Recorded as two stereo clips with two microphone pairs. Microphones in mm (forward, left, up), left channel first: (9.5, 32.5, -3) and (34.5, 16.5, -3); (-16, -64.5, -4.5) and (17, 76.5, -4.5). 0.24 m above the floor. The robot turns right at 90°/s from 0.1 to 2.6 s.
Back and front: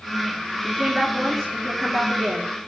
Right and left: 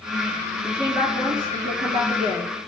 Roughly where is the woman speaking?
Ahead.